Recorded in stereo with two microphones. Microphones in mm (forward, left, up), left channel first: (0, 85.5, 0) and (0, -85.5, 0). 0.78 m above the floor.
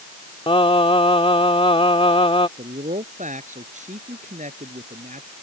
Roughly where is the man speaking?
Right.